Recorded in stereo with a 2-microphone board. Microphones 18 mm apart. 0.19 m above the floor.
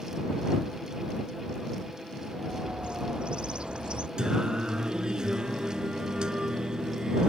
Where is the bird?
80° right.